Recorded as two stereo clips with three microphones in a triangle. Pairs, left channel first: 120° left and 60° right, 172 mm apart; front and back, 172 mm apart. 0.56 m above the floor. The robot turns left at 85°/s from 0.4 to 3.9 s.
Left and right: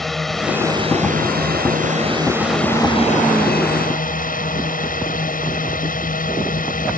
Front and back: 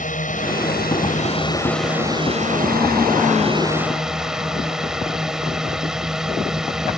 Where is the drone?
30° left; by 7.0 s 95° left.